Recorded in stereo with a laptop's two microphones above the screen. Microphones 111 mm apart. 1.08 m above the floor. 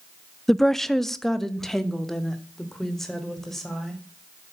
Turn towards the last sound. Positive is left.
turn(degrees=5)  # may be behind; listen again after turning